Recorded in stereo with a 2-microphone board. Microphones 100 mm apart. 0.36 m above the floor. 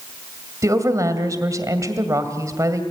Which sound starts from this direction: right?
A woman speaking, at 0.6 s.